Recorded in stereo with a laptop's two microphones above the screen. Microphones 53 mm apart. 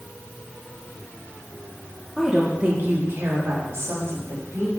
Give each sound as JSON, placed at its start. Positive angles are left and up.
{"t": 2.2, "sound": "a woman speaking", "side_deg": 0, "distance_m": 0.9}